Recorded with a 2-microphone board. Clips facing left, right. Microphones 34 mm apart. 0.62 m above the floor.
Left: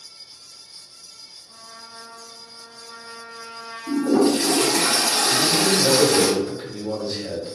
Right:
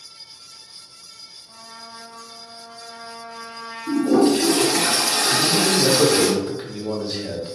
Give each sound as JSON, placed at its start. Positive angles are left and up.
{"t": 1.5, "sound": "a trumpet", "side_deg": -30, "distance_m": 1.4}
{"t": 3.9, "sound": "a toilet flushing", "side_deg": -15, "distance_m": 1.4}
{"t": 5.3, "sound": "a man speaking", "side_deg": -20, "distance_m": 0.9}